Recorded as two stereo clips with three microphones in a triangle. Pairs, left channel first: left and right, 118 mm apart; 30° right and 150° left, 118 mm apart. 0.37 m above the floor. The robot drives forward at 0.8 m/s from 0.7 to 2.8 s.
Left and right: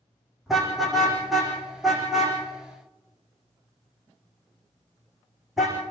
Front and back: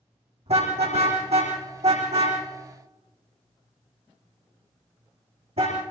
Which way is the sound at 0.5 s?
Straight behind.